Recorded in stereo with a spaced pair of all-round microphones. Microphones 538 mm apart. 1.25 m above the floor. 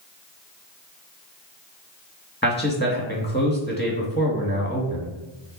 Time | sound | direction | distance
2.4 | a man speaking | 15° left (ahead or behind) | 2 m